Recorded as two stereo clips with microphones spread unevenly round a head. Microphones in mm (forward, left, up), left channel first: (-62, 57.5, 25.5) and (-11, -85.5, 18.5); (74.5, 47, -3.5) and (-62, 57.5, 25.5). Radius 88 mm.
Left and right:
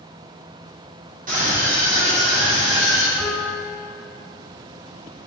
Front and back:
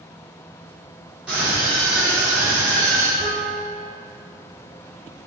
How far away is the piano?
About 3.5 m.